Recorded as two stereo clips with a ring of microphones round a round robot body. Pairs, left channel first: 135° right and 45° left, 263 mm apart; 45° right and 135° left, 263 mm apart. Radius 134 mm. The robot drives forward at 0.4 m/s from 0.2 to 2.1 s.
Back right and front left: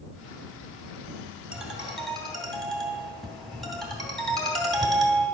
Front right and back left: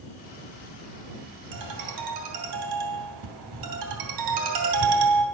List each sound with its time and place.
1.5 s a ringtone: 130° left, 2 m; by 5.2 s 135° left, 2.5 m